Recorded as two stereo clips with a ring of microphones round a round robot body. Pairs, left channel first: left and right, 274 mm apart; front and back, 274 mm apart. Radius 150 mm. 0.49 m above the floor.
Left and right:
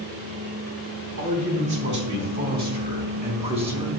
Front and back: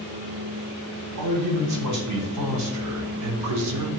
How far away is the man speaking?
About 3 m.